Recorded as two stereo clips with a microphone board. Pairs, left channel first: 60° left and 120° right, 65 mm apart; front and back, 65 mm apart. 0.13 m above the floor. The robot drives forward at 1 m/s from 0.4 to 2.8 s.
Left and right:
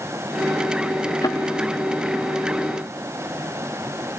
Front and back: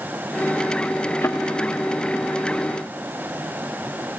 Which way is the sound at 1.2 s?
60° left.